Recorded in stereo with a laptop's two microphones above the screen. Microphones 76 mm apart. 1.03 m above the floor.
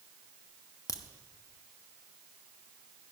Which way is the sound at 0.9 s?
50° left (ahead or behind).